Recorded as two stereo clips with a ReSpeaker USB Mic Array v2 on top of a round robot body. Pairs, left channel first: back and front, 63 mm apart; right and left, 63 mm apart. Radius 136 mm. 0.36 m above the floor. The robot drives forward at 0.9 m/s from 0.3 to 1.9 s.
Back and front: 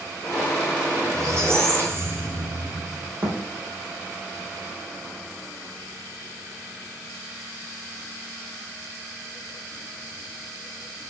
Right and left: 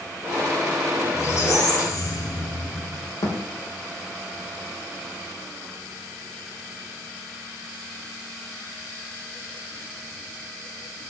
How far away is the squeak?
About 3.5 m.